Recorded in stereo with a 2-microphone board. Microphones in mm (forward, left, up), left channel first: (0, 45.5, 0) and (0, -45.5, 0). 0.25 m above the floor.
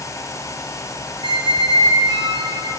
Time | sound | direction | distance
1.2 | a squeak | 75° right (ahead or behind) | 0.6 m